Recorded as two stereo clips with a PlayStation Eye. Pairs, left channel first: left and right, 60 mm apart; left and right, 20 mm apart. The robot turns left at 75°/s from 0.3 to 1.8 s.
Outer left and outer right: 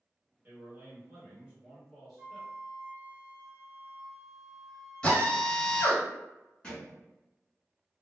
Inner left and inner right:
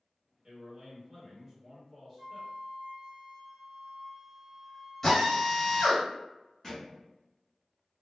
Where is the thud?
20° left (ahead or behind), 1.6 m.